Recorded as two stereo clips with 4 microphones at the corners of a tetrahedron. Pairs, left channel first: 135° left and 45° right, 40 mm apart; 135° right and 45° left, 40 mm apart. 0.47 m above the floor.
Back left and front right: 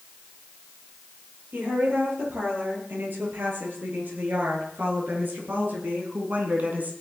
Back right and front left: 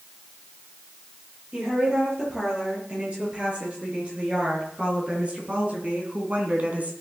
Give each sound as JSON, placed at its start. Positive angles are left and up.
{"t": 1.5, "sound": "a woman speaking", "azimuth_deg": -15, "distance_m": 9.5}